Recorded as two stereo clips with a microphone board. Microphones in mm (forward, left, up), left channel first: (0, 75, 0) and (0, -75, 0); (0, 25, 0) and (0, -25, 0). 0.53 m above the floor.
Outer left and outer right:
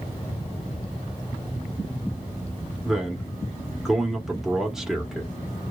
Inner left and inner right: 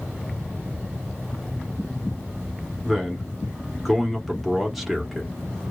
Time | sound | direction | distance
2.8 | a man speaking | 5° right (ahead or behind) | 0.9 m